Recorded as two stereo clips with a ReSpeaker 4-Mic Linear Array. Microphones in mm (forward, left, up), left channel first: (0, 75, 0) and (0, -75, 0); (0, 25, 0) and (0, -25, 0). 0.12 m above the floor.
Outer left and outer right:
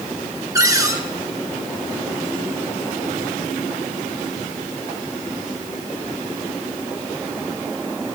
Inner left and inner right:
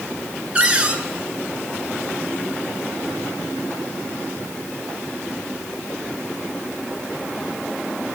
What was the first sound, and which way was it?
A cupboard door, 20° right (ahead or behind).